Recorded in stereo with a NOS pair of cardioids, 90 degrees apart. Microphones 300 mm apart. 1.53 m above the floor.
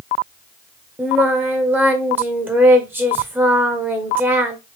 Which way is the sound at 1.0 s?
5° right.